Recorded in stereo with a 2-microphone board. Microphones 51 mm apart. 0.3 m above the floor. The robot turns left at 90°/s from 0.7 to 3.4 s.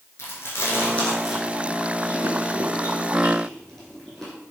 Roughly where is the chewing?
Left.